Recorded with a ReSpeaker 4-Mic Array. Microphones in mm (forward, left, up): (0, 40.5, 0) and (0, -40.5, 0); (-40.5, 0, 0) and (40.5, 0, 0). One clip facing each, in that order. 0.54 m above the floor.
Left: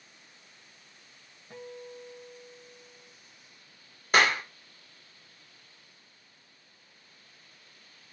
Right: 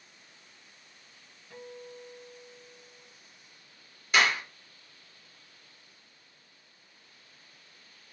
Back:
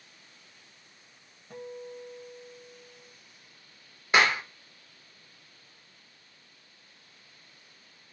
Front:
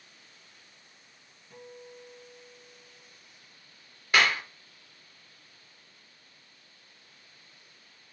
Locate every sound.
1.5 s a guitar: 150° left, 1.8 m
4.1 s a clap: 120° left, 1.5 m